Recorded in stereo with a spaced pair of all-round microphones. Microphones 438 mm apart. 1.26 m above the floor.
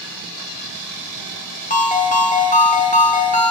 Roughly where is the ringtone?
Centre.